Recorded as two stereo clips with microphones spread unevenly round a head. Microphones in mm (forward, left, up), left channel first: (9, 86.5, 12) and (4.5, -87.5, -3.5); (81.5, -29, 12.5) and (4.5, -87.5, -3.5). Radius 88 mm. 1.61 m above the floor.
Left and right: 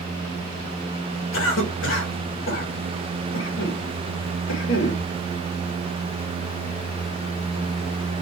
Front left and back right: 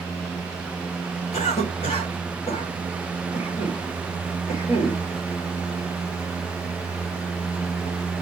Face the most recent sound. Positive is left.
turn(degrees=80)